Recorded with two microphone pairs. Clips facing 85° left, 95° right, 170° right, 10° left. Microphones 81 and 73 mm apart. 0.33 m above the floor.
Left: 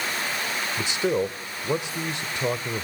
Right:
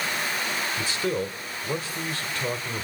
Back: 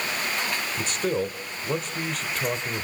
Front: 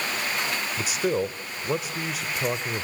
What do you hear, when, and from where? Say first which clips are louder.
0.8 s a man speaking: left 5 dB, front 1 dB; 75° left, 1.0 m